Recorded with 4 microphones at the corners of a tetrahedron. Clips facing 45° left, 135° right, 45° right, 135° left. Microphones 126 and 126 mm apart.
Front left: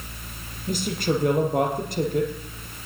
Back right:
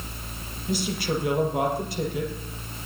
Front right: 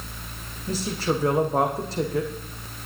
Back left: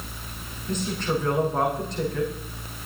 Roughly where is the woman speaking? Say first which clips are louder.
Front left 2 dB, front right 1 dB; ahead.